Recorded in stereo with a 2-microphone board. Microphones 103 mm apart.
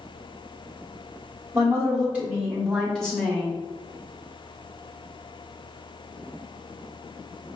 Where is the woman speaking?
25° right (ahead or behind), 1.6 m; by 3.6 s 20° left (ahead or behind), 1.4 m.